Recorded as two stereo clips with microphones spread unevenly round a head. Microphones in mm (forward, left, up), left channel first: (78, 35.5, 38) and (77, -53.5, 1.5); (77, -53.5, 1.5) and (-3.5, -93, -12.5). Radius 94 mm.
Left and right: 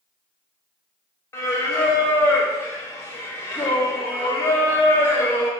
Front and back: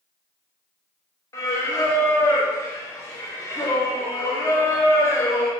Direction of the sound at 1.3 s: 65° left.